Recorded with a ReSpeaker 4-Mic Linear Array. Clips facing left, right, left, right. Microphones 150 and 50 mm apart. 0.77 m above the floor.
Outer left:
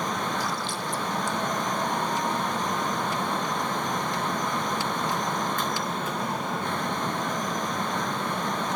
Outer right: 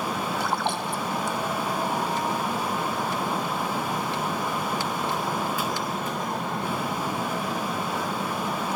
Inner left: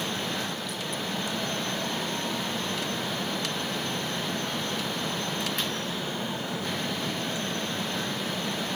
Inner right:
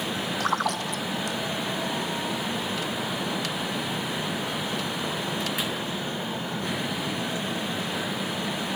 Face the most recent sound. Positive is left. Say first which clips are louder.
# outer right 4 dB, inner right 7 dB
turn(degrees=-65)  # may be behind; listen again after turning